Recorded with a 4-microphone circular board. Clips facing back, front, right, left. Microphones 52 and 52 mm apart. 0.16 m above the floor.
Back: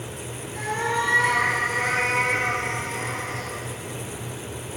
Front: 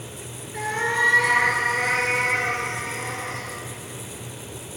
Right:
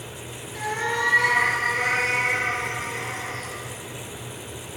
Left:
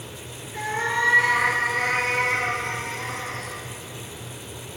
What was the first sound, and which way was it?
A cat meowing, 25° left.